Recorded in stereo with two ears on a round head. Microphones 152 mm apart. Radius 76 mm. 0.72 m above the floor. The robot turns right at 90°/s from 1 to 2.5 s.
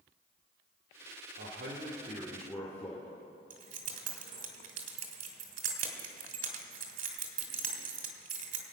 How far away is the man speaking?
About 2 m.